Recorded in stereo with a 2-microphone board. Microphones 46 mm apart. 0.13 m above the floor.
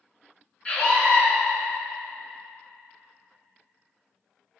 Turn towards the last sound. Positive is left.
turn(degrees=25)  # may be behind; listen again after turning